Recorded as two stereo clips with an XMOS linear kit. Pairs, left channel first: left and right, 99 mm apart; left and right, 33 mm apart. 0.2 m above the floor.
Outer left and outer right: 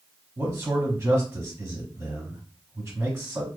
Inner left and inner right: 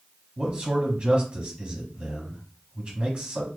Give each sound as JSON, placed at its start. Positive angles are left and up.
{"t": 0.4, "sound": "a man speaking", "side_deg": -25, "distance_m": 1.1}